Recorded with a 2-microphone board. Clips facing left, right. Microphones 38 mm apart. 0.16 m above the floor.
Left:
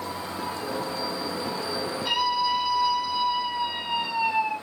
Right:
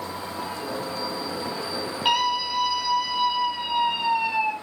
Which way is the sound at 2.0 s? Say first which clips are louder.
Right 2 dB; 70° right (ahead or behind).